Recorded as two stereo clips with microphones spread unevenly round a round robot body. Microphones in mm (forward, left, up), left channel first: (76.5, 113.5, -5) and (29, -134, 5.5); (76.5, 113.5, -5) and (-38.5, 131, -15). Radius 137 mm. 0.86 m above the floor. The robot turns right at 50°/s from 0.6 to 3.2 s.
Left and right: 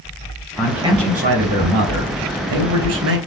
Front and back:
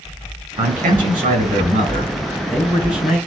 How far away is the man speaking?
About 5 m.